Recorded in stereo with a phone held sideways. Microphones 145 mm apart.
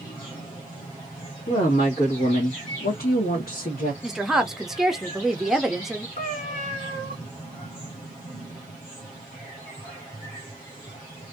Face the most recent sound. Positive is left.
turn(degrees=60)  # may be behind; listen again after turning